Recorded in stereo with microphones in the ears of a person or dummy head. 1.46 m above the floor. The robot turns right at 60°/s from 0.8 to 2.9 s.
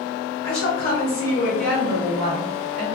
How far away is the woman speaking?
About 1.3 m.